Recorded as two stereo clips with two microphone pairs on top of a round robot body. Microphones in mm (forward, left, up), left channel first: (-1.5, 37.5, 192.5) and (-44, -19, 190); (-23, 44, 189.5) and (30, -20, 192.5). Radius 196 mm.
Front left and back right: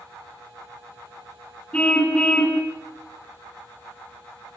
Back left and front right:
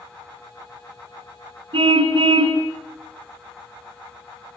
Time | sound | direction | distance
1.7 | a car horn | 20° right | 4 m